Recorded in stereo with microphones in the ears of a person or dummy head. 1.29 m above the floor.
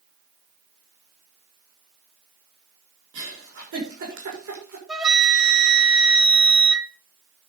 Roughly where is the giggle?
Right.